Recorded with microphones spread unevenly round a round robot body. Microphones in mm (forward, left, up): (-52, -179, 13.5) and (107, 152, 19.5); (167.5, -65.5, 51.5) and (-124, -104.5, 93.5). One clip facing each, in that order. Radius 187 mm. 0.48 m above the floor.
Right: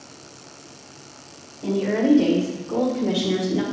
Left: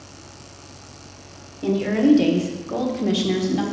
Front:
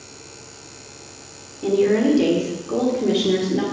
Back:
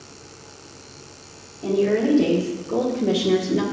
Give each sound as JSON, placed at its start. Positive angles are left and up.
{"t": 1.6, "sound": "a woman speaking", "azimuth_deg": 50, "distance_m": 1.9}